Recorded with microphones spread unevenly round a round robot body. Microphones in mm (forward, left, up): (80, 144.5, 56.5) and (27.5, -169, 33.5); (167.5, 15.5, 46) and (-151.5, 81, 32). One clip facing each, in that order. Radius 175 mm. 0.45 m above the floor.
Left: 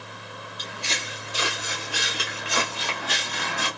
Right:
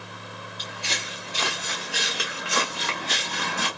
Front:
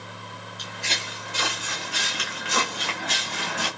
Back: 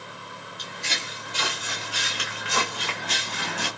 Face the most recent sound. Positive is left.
turn(degrees=-50)